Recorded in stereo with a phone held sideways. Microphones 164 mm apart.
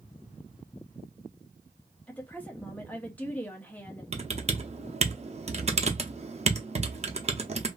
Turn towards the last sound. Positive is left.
turn(degrees=-40)  # may be behind; listen again after turning